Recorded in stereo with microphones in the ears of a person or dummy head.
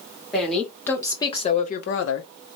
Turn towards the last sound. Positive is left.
turn(degrees=70)  # may be behind; listen again after turning